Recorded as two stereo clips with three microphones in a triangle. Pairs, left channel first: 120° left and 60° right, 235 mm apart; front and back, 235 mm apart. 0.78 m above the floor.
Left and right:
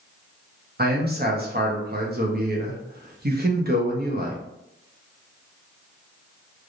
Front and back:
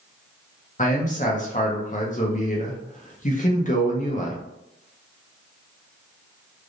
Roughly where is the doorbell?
No doorbell in this recording.